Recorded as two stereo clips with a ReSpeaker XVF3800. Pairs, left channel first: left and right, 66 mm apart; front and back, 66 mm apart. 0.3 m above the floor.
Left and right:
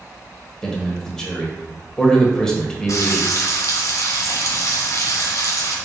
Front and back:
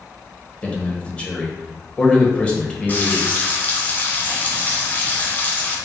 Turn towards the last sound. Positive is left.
turn(degrees=60)